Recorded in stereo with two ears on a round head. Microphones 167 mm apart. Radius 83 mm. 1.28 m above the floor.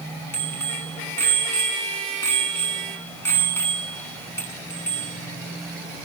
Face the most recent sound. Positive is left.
turn(degrees=15)  # may be behind; listen again after turning